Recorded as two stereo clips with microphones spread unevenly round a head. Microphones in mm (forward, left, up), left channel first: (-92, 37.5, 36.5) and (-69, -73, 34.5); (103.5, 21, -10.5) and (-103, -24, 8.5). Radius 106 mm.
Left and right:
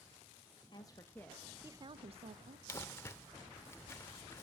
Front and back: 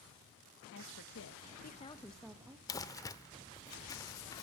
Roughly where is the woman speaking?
Ahead left.